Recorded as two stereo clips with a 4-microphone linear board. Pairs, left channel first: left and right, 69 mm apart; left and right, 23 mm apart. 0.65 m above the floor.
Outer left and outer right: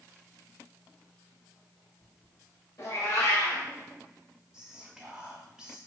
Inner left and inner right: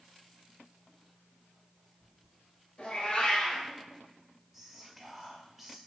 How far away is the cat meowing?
About 0.9 m.